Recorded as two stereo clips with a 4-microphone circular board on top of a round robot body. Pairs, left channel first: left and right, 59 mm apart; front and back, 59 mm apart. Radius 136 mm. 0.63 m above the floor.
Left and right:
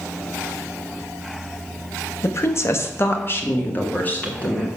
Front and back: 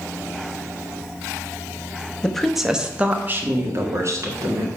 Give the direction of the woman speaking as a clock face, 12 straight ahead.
10 o'clock.